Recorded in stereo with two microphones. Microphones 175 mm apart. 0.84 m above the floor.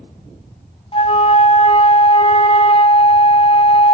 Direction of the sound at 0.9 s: 35° left (ahead or behind).